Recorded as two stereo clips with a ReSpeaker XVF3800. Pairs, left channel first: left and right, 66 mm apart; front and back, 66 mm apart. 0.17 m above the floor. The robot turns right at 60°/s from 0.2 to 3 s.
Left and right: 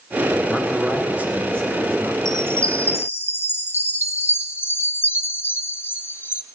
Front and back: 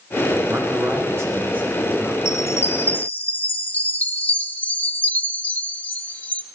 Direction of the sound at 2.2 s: 5° left.